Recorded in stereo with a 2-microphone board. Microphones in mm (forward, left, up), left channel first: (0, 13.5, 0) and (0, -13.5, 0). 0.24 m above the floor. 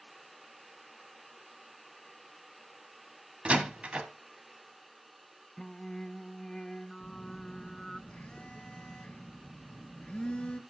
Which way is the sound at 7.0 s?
40° left (ahead or behind).